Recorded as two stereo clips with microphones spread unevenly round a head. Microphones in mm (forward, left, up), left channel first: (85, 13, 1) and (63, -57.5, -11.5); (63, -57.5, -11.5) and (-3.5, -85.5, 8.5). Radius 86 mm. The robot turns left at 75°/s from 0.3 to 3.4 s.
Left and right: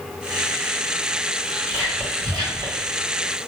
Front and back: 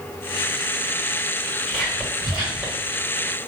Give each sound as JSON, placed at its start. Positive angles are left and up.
{"t": 1.7, "sound": "whispering", "azimuth_deg": -25, "distance_m": 1.4}